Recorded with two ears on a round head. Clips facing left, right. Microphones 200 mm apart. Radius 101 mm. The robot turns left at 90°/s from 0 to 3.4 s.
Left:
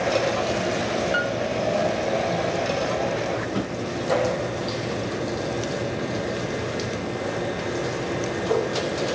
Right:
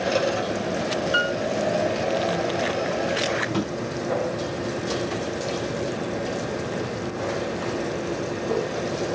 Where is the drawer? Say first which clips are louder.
Right 1 dB; 80° right, 3 m.